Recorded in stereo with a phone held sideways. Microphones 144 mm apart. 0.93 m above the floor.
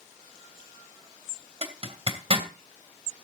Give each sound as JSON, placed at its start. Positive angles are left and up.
{"t": 1.6, "sound": "a zipper", "side_deg": -45, "distance_m": 2.5}